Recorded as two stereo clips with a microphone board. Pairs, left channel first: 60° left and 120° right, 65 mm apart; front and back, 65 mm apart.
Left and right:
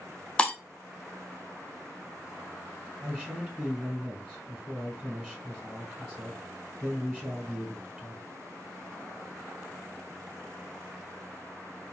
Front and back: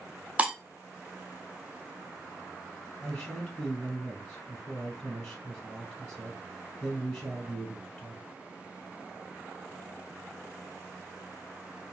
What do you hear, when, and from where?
0.4 s breaking glass: 125° left, 0.6 m
3.0 s a man speaking: 65° right, 1.1 m